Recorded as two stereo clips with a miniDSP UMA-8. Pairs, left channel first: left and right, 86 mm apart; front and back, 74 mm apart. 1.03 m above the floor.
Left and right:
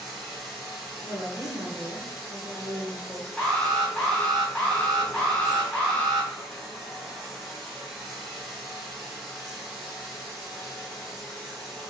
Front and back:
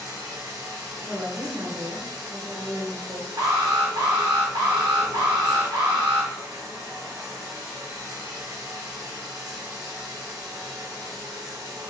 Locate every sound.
0.0 s running water: straight behind, 1.2 m
1.0 s a woman speaking: 150° right, 1.5 m
3.4 s an alarm: 175° left, 2.0 m